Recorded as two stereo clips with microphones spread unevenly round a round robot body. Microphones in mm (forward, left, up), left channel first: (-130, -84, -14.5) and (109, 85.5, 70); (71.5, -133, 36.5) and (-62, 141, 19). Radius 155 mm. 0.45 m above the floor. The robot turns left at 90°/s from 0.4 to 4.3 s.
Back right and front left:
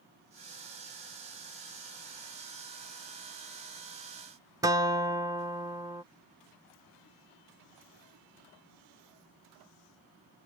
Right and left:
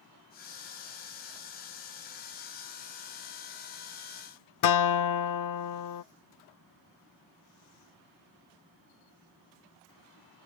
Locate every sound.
4.6 s a guitar: 50° right